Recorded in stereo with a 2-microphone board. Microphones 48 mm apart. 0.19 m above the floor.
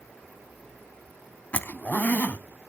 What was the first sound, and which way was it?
A zipper, 35° left (ahead or behind).